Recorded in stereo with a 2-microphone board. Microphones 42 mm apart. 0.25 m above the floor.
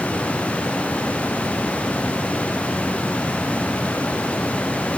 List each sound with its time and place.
Only background noise.